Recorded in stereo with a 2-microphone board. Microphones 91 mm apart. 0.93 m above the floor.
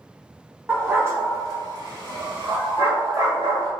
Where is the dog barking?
20° right (ahead or behind), 1.0 m; by 3.7 s 65° right (ahead or behind), 1.5 m.